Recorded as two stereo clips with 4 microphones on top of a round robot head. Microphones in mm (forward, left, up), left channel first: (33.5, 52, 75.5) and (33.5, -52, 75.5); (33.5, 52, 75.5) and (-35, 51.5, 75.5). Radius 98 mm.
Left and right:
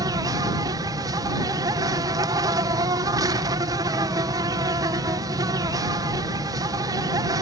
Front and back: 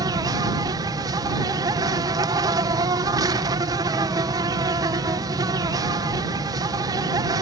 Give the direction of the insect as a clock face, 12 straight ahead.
5 o'clock.